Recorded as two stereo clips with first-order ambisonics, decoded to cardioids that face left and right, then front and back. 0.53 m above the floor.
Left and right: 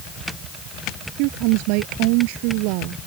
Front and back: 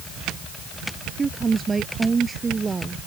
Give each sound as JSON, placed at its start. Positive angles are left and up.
{"t": 1.2, "sound": "a woman speaking", "azimuth_deg": -105}